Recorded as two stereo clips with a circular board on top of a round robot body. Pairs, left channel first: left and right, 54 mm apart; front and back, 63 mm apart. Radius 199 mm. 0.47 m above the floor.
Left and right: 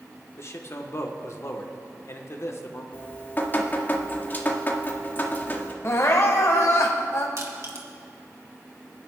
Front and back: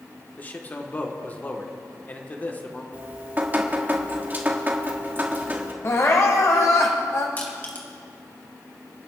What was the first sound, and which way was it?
A man speaking, 60° left.